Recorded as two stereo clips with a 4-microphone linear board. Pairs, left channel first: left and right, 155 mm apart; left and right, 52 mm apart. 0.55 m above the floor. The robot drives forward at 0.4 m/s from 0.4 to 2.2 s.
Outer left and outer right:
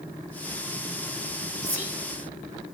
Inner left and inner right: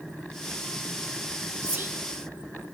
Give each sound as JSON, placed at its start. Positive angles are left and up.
{"t": 1.6, "sound": "whispering", "side_deg": -25, "distance_m": 0.9}